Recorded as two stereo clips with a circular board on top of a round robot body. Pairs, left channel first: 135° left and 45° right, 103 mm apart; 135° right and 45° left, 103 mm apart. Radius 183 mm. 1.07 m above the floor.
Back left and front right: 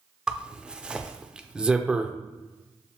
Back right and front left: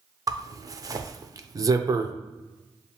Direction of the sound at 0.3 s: 30° left.